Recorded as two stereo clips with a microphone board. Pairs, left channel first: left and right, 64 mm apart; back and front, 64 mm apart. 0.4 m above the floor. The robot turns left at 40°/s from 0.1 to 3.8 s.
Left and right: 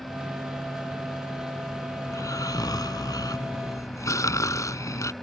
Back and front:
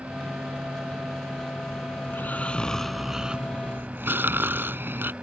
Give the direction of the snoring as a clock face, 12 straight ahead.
8 o'clock.